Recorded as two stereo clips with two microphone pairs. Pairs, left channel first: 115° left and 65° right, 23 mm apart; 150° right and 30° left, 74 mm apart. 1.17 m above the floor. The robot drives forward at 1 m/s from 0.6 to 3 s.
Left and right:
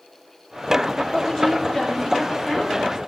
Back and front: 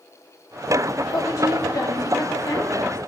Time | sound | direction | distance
1.1 | a woman speaking | 170° left | 2.0 m